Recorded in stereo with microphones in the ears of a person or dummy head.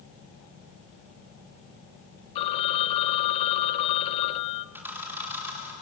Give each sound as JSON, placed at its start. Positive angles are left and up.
{"t": 2.4, "sound": "a phone ringing", "side_deg": 30, "distance_m": 0.9}
{"t": 4.8, "sound": "a camera shutter", "side_deg": -10, "distance_m": 4.5}